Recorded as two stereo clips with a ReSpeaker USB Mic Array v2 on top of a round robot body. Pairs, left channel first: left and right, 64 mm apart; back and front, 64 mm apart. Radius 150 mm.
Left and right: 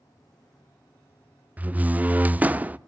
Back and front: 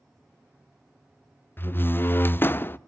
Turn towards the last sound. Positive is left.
turn(degrees=-145)